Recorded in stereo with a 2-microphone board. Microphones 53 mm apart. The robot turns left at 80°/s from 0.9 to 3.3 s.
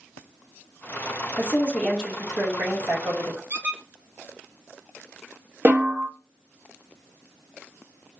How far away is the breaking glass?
I don't hear breaking glass.